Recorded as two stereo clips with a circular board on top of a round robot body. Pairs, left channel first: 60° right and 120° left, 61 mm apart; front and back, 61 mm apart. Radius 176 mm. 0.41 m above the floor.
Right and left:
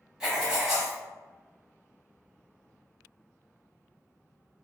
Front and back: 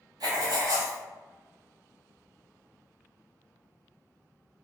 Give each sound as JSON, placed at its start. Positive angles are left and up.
{"t": 0.2, "sound": "writing", "azimuth_deg": -160, "distance_m": 0.9}